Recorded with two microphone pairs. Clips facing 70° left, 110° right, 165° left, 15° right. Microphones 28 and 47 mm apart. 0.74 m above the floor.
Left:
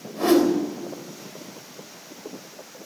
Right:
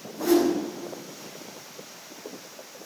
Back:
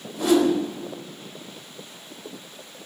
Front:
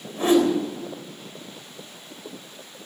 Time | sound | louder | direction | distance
0.2 | a whoosh | left 3 dB, even | 40° left | 3.5 m